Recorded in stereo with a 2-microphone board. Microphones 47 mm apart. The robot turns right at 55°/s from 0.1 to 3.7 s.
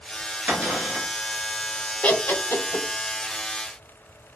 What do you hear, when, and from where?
0.5 s a cupboard door: 115° right, 1.4 m; by 1.1 s 80° right, 1.4 m
2.0 s laughter: 30° left (ahead or behind), 0.6 m; by 2.9 s 65° left (ahead or behind), 0.6 m